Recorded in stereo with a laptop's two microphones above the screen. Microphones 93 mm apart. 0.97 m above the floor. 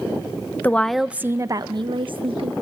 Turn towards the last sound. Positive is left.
turn(degrees=-65)  # may be behind; listen again after turning